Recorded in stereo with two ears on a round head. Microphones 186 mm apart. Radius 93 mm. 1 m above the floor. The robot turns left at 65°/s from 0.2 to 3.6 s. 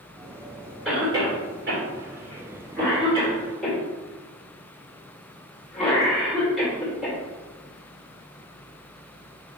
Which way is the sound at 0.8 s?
5° right (ahead or behind).